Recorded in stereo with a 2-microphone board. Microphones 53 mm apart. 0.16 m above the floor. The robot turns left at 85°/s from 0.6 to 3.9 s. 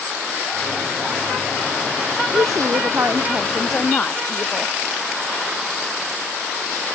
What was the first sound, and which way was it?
A woman speaking, 70° right.